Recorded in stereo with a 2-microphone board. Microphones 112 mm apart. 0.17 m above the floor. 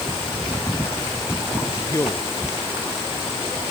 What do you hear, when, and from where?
1.8 s a man speaking: 30° left (ahead or behind)